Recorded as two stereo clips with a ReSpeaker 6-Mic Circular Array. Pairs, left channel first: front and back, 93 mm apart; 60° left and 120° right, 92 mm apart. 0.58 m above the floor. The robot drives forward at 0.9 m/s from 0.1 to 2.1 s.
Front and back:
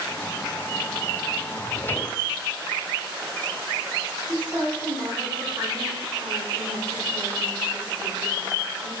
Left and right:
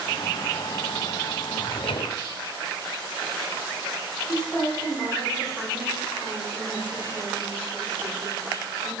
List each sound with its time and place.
1.6 s a drawer: 45° left, 0.8 m; by 2.2 s 85° left, 0.6 m
4.3 s a woman speaking: 140° left, 4.5 m